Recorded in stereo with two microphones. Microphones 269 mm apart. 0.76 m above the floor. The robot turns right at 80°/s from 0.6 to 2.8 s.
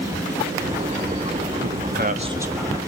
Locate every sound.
1.6 s a man speaking: 80° right, 1.2 m; by 2.8 s 15° left, 1.2 m